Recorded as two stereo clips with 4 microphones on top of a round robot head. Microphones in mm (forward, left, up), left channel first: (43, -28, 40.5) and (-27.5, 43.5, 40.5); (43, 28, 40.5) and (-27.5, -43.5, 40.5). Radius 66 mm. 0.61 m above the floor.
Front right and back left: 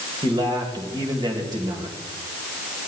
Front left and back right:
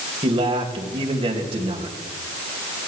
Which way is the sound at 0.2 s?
175° right.